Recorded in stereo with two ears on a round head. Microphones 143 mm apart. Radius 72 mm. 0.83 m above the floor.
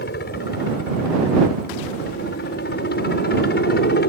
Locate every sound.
0.0 s a helicopter: 60° left (ahead or behind)